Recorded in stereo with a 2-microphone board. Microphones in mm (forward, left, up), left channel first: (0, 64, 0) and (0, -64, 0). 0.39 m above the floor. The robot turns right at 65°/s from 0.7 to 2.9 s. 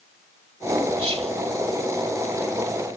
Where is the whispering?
35° right (ahead or behind), 2 m; by 1.3 s 45° right (ahead or behind), 2 m.